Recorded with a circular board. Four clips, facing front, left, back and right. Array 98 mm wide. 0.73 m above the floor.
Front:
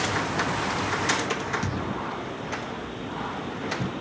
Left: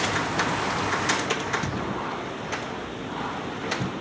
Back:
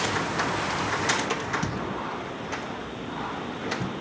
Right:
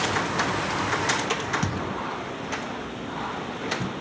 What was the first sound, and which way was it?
A thud, 90° right.